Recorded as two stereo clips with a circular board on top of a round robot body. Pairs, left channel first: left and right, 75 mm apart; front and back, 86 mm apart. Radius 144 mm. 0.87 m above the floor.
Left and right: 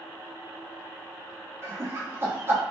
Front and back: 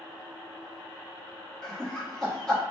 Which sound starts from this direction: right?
Laughter, at 1.6 s.